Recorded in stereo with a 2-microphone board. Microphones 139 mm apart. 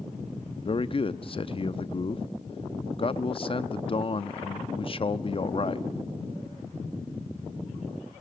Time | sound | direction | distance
0.7 | a man speaking | 40° left (ahead or behind) | 0.6 m